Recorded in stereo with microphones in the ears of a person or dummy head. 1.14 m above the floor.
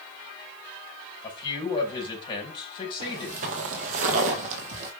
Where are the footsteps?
40° right (ahead or behind), 1.4 m; by 4.9 s 45° right (ahead or behind), 2.5 m.